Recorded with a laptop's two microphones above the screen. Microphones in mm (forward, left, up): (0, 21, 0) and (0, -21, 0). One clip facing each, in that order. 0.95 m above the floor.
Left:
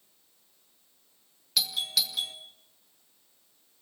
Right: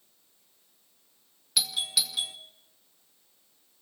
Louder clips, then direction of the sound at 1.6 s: Even; 5° right (ahead or behind).